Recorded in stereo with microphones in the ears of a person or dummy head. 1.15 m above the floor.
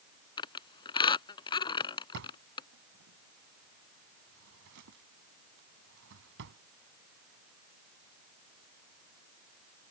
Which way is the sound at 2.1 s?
65° right (ahead or behind).